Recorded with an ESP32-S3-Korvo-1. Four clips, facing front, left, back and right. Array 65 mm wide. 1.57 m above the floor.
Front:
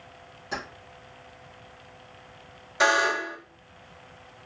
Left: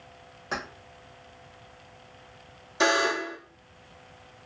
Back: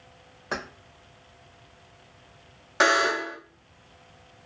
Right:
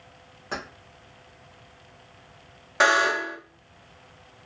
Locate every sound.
0.5 s keys jangling: 170° left, 1.1 m
2.8 s a buzzer: 125° right, 1.2 m